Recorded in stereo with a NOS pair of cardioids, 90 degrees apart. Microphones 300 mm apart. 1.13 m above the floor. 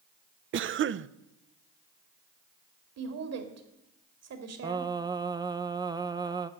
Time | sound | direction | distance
0.5 | a cough | 45° right | 0.6 m
3.0 | a woman speaking | 55° right | 2.5 m
4.6 | singing | 15° right | 0.6 m